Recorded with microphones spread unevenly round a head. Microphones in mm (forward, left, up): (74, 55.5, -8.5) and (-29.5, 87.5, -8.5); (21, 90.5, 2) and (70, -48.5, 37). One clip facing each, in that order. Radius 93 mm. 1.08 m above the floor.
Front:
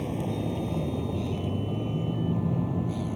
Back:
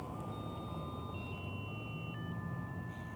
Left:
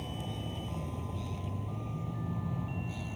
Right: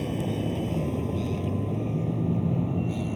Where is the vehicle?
60° right; by 3.2 s 55° right.